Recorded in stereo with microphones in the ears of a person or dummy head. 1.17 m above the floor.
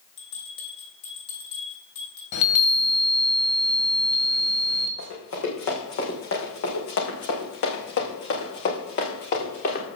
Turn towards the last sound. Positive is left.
turn(degrees=50)  # may be behind; listen again after turning